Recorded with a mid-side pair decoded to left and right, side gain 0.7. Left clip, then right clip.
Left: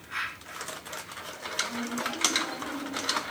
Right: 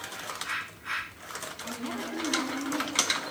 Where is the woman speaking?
40° right, 9 m.